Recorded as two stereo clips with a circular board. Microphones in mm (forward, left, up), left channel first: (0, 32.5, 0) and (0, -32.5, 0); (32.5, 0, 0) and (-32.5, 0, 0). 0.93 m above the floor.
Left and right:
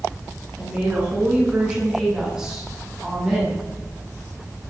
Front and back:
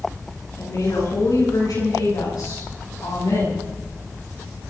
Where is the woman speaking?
20° right, 9.5 m; by 3.7 s 5° right, 7.5 m.